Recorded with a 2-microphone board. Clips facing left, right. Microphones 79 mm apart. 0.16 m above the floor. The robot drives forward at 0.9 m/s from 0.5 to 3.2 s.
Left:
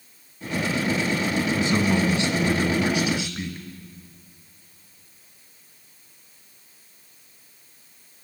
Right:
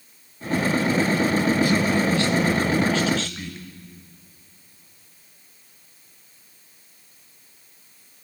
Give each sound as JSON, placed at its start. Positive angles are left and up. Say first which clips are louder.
{"t": 1.6, "sound": "a man speaking", "louder": "right 2 dB", "side_deg": 25, "distance_m": 1.3}